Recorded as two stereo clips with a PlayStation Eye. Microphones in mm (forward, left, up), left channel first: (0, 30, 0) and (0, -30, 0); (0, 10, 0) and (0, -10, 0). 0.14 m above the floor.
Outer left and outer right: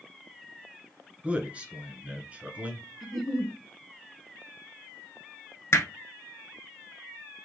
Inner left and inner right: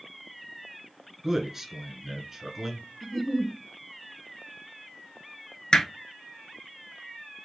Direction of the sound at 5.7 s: 50° left (ahead or behind).